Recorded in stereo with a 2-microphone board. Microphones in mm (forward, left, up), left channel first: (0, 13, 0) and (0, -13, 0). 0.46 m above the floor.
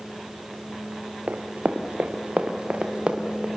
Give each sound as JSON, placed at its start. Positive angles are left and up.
{"t": 1.3, "sound": "running footsteps", "side_deg": -80, "distance_m": 2.5}